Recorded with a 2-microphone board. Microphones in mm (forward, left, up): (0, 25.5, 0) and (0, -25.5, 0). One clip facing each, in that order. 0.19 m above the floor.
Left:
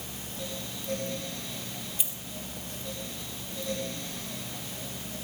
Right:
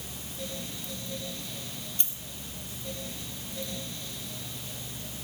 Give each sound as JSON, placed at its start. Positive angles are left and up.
{"t": 2.0, "sound": "a dropped coin", "side_deg": 5, "distance_m": 1.4}